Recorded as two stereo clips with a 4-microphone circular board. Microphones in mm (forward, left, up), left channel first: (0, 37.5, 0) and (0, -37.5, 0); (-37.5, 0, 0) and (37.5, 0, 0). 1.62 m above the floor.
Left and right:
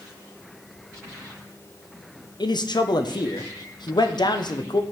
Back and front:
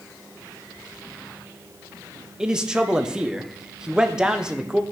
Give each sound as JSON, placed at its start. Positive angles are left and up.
{"t": 2.4, "sound": "a man speaking", "azimuth_deg": 80, "distance_m": 0.8}